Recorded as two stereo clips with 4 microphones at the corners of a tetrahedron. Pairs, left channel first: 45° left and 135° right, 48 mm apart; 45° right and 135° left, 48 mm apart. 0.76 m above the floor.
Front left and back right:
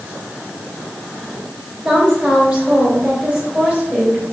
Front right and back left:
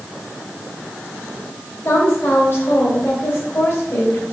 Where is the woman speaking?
70° right, 2.5 m.